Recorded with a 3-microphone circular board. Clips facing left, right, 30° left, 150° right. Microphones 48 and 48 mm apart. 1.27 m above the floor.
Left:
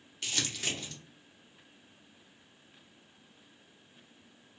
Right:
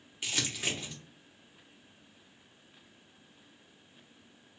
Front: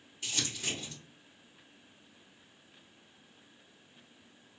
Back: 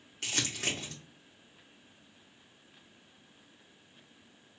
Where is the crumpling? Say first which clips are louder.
Right 1 dB, back 3 dB; 165° right, 1.0 m.